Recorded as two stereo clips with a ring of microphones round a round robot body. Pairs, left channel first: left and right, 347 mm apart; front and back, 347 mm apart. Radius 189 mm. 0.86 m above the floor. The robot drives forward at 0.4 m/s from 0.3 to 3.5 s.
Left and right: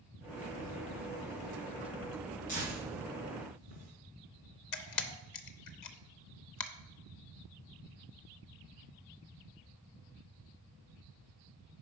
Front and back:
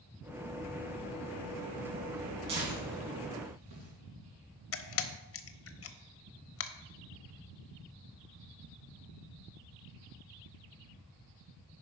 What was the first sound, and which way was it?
Tearing paper, 160° left.